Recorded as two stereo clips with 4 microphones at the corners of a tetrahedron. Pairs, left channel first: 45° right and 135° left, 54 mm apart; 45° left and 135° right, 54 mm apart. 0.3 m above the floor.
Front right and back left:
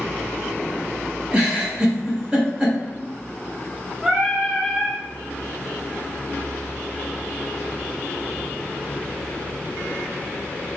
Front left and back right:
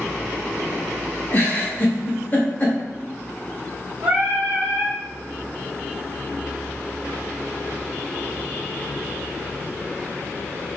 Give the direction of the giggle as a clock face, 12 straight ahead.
9 o'clock.